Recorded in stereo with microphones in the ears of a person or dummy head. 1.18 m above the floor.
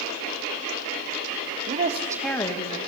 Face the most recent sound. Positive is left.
turn(degrees=40)  # may be behind; listen again after turning